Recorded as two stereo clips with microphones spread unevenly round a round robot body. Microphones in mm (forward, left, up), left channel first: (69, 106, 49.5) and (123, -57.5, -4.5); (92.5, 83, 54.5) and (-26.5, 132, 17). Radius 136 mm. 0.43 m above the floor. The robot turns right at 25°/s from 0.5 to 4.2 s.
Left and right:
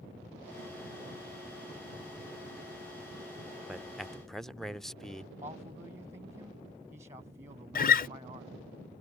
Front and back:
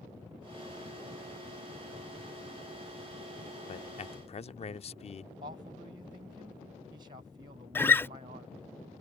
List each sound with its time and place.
3.7 s a man speaking: 25° right; by 5.3 s 10° right
5.4 s a man speaking: 145° right
7.8 s a guitar: 60° left